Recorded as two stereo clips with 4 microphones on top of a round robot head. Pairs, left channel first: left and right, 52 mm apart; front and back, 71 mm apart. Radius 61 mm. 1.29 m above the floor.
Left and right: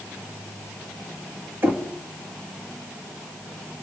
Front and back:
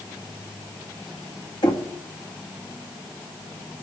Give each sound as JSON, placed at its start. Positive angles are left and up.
{"t": 1.6, "sound": "knocking", "azimuth_deg": -40, "distance_m": 1.7}